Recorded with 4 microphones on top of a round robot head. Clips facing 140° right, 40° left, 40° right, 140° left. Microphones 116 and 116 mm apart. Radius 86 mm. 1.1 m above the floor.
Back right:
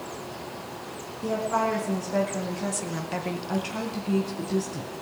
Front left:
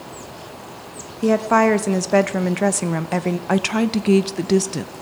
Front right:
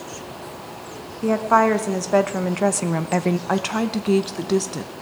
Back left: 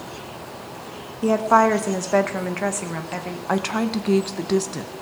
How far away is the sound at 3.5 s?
About 0.7 m.